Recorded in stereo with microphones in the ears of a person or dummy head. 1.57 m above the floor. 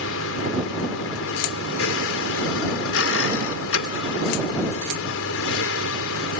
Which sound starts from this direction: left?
A vehicle, at 0.0 s.